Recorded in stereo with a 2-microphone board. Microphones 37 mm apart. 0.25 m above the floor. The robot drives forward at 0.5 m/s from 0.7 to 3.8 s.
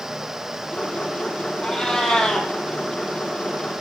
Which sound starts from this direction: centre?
A cat meowing, at 1.6 s.